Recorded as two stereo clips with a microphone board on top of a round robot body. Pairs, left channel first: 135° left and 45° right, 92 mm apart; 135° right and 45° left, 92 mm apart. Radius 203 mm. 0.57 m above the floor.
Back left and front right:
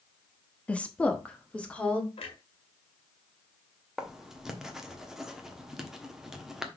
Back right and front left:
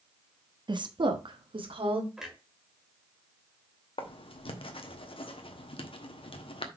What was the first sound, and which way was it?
A woman speaking, 60° left.